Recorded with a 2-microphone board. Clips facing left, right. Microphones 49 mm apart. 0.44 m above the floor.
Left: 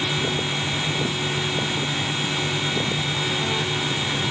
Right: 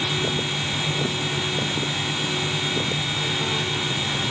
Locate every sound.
Only background noise.